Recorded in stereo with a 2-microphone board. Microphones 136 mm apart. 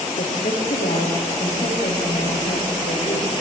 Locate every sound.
0.2 s a woman speaking: 80° left, 8 m